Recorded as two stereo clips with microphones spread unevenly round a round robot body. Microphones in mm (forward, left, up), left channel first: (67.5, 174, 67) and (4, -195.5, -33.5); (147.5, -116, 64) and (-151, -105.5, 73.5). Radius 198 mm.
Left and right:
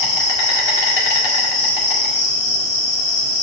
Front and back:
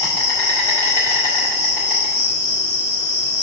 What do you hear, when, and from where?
0.0 s an insect: 75° left, 2.0 m